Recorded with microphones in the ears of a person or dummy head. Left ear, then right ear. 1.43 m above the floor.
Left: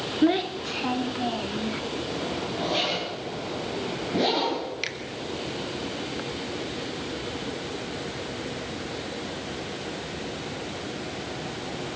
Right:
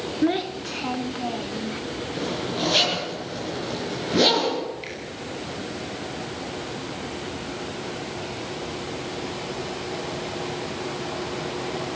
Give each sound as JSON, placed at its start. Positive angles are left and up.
{"t": 0.2, "sound": "a child speaking", "side_deg": 10, "distance_m": 0.6}
{"t": 2.1, "sound": "a zipper", "side_deg": -35, "distance_m": 8.5}
{"t": 4.8, "sound": "a finger snap", "side_deg": 50, "distance_m": 2.5}